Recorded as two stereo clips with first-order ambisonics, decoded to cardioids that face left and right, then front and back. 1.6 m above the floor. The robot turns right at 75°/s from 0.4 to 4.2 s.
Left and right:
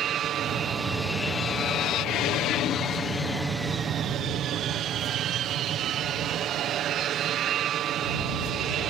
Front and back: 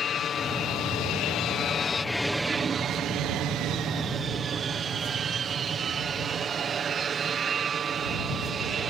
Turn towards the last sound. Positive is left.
turn(degrees=-125)